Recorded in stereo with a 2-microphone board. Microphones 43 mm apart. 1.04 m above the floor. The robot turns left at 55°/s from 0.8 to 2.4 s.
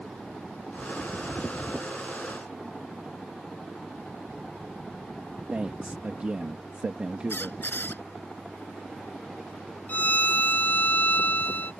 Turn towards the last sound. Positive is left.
turn(degrees=50)  # may be behind; listen again after turning